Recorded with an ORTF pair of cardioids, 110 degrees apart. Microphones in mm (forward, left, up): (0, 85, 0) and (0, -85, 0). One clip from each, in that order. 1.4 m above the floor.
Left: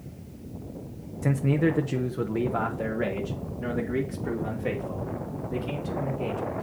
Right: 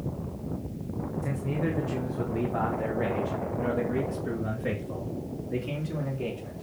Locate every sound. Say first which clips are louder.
1.2 s a man speaking: left 8 dB; 50° left, 1.1 m; by 6.6 s 5° right, 4 m